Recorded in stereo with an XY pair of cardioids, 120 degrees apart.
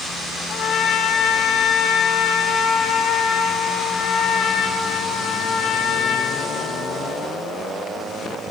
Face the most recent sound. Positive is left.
turn(degrees=55)